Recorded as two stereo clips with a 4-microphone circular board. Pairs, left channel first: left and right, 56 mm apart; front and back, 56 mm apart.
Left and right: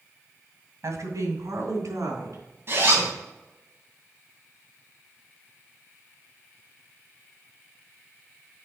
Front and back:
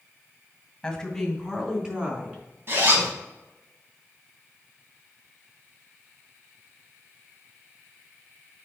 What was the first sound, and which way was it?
A woman speaking, 80° right.